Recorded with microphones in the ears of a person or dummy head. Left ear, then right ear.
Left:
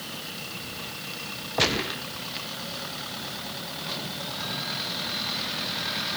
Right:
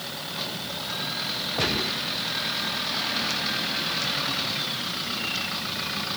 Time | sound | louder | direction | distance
1.6 | a gunshot | left 3 dB | 25° left (ahead or behind) | 1.0 m